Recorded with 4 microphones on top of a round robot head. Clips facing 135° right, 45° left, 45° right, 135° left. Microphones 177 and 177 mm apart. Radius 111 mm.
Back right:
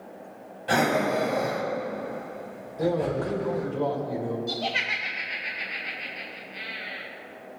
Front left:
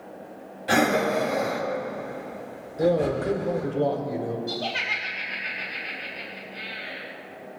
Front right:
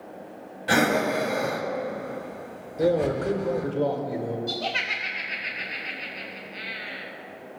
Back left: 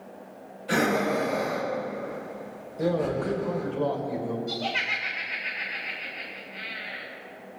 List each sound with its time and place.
0.7 s breathing: 35° right, 1.2 m
2.8 s a man speaking: 20° right, 1.8 m
4.5 s laughter: 70° right, 0.9 m